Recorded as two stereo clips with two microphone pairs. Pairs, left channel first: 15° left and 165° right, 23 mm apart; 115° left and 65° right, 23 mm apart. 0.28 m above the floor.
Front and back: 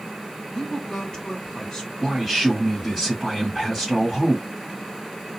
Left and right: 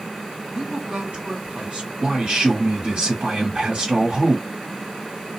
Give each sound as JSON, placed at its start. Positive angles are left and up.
{"t": 0.5, "sound": "a woman speaking", "azimuth_deg": -50, "distance_m": 2.0}
{"t": 2.0, "sound": "a man speaking", "azimuth_deg": -70, "distance_m": 1.6}